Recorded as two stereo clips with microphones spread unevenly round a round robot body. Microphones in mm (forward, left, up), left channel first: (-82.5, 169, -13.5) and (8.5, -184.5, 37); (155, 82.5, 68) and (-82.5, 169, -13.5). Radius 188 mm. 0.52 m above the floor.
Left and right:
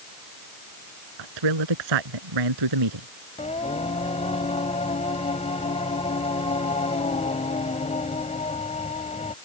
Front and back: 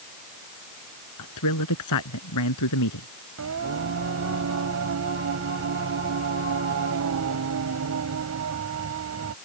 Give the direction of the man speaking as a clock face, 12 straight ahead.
2 o'clock.